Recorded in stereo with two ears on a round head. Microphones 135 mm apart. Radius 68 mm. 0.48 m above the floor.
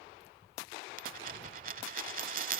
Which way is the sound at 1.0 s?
60° right (ahead or behind).